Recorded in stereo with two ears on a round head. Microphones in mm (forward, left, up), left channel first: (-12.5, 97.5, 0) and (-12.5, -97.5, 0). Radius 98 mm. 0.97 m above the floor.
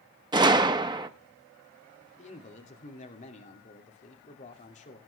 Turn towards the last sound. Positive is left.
turn(degrees=35)  # may be behind; listen again after turning